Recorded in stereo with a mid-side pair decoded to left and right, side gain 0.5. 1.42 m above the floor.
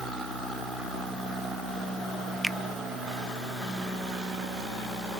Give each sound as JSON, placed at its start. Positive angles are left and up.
{"t": 2.4, "sound": "a finger snap", "azimuth_deg": 0}